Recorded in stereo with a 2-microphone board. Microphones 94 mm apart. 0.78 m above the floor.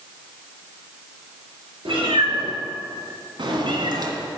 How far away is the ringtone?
No ringtone in this recording.